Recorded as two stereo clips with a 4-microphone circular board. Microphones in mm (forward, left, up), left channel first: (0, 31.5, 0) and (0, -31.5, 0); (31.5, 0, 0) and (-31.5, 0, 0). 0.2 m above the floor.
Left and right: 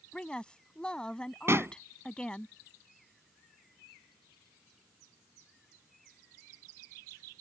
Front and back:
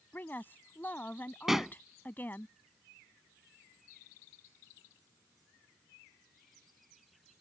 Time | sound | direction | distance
0.1 | a woman speaking | 25° left | ?
1.5 | a pop | 100° right | ?